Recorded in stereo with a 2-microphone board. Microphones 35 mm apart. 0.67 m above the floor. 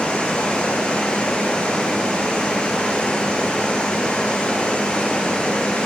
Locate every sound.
0.0 s running water: 25° left (ahead or behind), 8 m